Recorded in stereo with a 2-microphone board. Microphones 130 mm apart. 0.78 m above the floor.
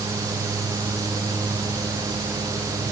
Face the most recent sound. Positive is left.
No sound to turn to.